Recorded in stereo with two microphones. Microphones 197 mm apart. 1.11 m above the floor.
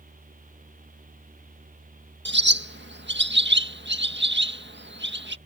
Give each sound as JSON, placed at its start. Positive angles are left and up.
{"t": 2.2, "sound": "a bird", "side_deg": -65}